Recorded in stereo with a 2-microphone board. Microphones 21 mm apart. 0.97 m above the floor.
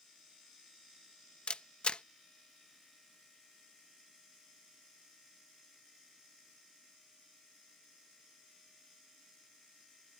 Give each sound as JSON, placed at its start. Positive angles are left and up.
{"t": 1.5, "sound": "a camera shutter", "side_deg": 50}